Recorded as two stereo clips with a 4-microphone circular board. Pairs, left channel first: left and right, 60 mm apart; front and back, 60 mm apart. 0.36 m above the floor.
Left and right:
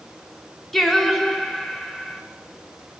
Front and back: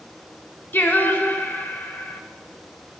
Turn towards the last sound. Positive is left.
turn(degrees=5)